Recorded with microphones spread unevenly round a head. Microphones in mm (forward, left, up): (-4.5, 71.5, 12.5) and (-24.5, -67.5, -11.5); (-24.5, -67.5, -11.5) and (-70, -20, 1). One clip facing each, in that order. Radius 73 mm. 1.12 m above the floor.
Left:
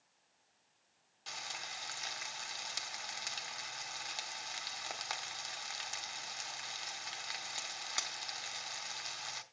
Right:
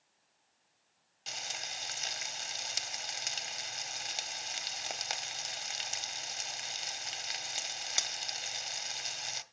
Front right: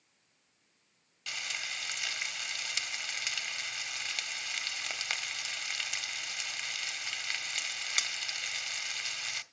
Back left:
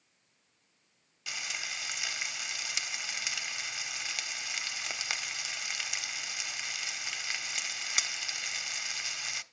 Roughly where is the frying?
Behind.